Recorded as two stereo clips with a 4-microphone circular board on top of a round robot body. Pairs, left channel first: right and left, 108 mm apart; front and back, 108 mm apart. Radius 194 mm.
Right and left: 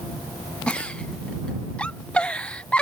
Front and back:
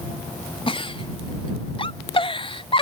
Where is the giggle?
10° right.